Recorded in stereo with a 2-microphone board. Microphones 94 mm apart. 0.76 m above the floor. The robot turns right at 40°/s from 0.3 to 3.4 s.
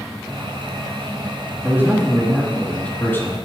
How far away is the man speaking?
About 1.6 m.